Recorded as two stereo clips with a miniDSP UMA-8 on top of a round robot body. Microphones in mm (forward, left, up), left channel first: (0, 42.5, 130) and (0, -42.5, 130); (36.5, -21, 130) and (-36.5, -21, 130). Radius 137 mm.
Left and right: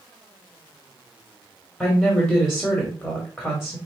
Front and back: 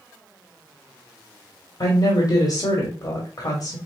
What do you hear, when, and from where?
1.8 s a woman speaking: 5° left, 1.5 m